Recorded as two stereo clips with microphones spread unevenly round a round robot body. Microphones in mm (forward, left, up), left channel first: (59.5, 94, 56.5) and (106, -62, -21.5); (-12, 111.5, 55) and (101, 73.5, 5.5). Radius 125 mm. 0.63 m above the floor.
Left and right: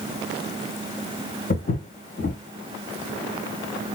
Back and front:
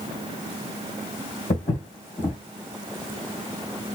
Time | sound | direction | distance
1.5 | footsteps | 135° left | 2.5 m